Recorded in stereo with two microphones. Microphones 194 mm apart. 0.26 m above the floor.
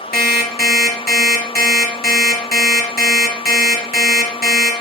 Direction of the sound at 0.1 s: 50° left (ahead or behind).